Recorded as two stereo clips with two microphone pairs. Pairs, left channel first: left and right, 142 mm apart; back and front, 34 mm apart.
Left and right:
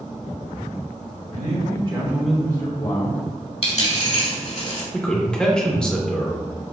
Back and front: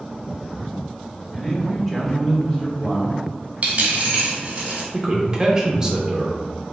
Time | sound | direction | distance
1.3 | a man speaking | 80° right | 1.6 m
3.6 | a dropped coin | 50° left | 1.2 m
4.9 | a man speaking | 10° left | 0.7 m